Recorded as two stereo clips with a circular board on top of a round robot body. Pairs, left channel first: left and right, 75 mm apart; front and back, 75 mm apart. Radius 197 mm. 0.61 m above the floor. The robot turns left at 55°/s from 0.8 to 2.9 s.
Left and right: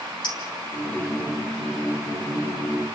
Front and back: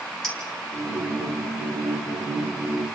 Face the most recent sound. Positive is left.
turn(degrees=-35)